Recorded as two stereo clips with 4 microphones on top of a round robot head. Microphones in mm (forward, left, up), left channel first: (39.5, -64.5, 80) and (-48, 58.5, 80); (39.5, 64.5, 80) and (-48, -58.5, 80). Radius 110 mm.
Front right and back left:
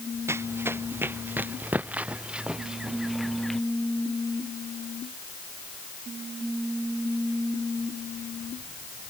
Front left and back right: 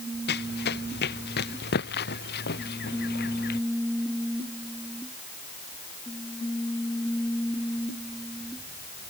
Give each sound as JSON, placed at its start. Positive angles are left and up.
{"t": 0.3, "sound": "running footsteps", "azimuth_deg": 50}